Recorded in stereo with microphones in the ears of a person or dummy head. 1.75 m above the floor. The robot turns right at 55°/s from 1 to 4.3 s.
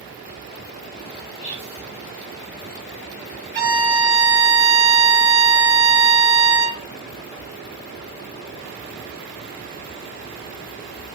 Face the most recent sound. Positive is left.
turn(degrees=-65)